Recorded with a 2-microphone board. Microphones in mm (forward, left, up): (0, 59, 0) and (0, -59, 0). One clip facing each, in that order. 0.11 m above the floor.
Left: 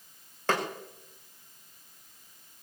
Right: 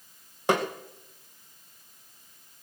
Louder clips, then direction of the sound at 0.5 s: Right 4 dB; 15° right (ahead or behind).